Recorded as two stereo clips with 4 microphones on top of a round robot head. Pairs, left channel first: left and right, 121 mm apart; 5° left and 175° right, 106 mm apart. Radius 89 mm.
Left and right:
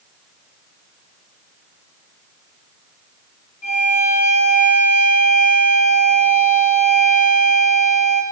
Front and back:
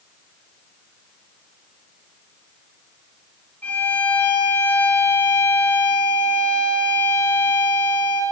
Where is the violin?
80° left, 2 m.